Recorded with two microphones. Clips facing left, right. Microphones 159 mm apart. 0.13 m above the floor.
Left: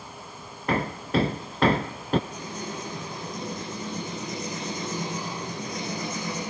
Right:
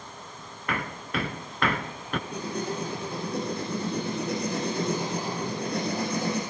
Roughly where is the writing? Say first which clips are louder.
Right 4 dB; right.